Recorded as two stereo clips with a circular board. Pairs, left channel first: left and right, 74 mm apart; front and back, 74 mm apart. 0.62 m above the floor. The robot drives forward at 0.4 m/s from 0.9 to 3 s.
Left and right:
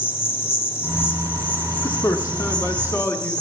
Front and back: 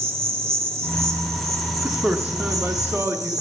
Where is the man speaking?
110° left, 1.0 m; by 3.4 s 135° left, 1.2 m.